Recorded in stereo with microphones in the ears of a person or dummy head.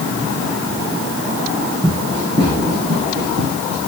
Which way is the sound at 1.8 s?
20° right (ahead or behind).